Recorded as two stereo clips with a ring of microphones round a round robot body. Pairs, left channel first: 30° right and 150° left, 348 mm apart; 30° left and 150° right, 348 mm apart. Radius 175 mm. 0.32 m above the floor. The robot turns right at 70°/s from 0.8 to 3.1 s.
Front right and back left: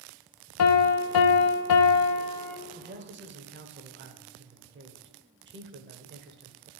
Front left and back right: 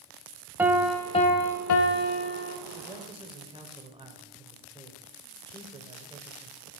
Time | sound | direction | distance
0.6 | a piano | 65° right | 0.7 m
2.8 | a man speaking | 125° left | 1.0 m